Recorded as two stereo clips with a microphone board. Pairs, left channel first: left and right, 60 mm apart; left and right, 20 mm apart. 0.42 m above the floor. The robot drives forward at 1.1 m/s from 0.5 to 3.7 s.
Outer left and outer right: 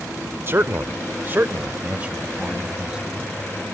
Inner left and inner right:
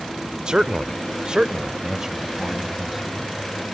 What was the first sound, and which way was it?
A man speaking, 40° right (ahead or behind).